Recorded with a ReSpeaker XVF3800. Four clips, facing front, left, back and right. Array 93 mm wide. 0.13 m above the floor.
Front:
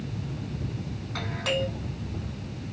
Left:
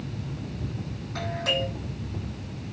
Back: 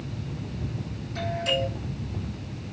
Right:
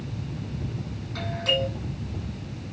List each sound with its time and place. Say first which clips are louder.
1.1 s a doorbell: right 1 dB, back 2 dB; 10° left, 7 m